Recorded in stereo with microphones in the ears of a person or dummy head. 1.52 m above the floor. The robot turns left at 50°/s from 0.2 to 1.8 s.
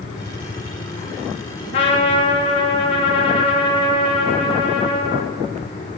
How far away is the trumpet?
About 1.6 m.